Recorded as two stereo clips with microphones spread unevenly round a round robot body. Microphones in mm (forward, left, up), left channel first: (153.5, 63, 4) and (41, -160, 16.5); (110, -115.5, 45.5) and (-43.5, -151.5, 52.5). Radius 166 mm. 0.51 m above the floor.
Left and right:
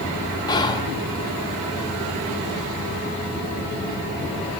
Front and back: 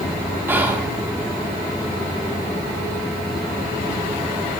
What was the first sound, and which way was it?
Whispering, 120° left.